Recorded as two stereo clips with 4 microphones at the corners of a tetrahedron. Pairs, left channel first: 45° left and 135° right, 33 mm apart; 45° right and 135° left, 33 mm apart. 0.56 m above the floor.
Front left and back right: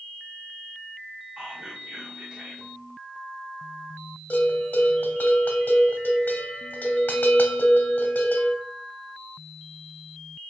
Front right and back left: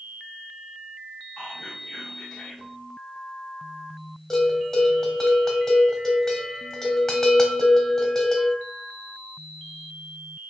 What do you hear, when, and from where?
1.4 s whispering: 115° right, 0.7 m
4.3 s a bell: 35° left, 0.7 m